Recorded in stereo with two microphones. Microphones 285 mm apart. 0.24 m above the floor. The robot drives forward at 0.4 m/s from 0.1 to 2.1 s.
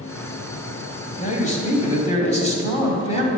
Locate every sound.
1.2 s a man speaking: 25° left (ahead or behind), 1.4 m